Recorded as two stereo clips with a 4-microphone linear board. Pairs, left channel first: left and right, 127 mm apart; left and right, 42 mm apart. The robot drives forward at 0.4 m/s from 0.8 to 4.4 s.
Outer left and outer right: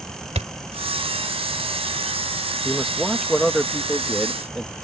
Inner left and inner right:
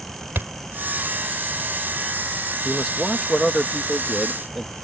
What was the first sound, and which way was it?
A thud, 60° right (ahead or behind).